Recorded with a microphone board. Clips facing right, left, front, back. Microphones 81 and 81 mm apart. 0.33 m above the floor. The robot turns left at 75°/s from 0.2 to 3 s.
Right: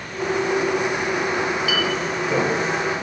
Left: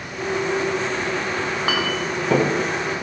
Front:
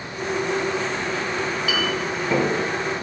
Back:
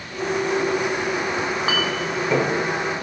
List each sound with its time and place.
1.4 s a clink: 155° left, 2 m; by 2.5 s 70° left, 2 m